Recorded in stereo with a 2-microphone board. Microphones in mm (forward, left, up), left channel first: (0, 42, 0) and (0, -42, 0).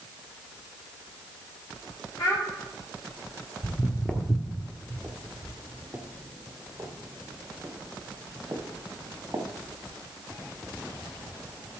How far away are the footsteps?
About 1.4 m.